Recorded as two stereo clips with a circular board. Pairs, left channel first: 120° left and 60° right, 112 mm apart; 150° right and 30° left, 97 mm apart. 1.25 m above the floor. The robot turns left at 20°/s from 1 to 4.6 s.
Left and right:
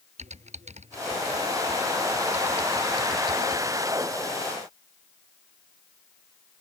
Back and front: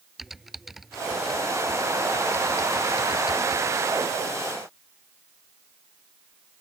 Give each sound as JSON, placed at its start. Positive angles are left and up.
{"t": 0.2, "sound": "typing on a keyboard", "azimuth_deg": -60}